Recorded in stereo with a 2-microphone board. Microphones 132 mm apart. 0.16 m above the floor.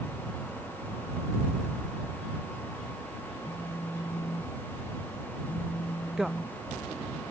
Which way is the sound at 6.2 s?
5° right (ahead or behind).